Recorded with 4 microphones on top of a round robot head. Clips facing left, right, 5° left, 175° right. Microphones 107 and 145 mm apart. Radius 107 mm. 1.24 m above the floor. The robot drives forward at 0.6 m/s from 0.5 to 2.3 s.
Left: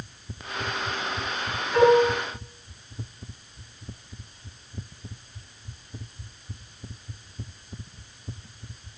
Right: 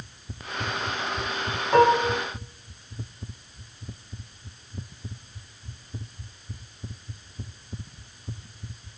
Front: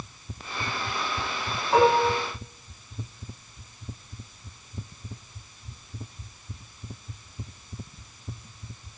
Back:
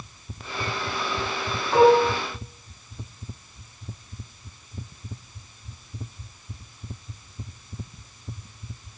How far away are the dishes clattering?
About 8.5 m.